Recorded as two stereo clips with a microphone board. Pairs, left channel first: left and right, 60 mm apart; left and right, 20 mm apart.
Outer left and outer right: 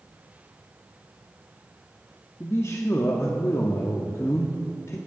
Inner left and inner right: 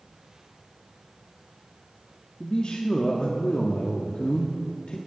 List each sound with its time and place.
2.4 s a man speaking: 50° left (ahead or behind), 0.7 m